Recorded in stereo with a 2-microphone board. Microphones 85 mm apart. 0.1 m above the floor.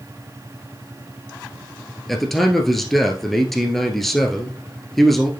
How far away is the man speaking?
About 1.4 m.